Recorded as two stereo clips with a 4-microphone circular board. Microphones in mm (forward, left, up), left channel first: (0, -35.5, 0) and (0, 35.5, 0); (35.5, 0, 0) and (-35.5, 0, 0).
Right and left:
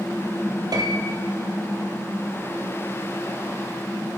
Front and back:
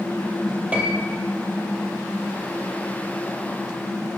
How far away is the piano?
About 1.6 m.